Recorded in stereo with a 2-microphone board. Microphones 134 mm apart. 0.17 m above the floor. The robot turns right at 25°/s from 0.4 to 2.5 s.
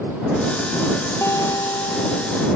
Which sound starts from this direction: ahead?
A guitar, at 1.2 s.